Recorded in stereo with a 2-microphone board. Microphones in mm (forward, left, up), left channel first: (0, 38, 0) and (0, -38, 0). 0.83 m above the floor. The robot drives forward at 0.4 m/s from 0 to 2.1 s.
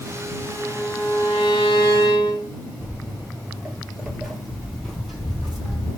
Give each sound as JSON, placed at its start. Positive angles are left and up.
{"t": 0.5, "sound": "a violin", "side_deg": 65, "distance_m": 1.7}
{"t": 2.8, "sound": "footsteps", "side_deg": -20, "distance_m": 0.8}